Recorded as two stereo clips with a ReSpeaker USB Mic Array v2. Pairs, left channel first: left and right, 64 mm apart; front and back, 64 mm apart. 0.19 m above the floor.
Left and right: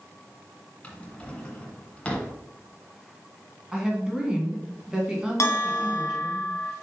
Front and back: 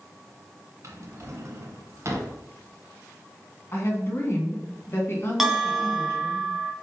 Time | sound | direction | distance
0.8 | a drawer | 155° left | 1.3 m
3.7 | a woman speaking | 20° right | 1.9 m
5.4 | a bell | 95° left | 1.2 m